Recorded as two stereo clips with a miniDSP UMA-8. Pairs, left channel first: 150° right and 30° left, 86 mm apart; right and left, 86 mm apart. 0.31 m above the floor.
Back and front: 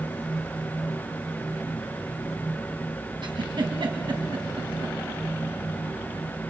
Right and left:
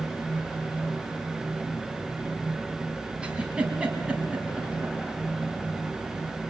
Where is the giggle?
15° left, 3 m.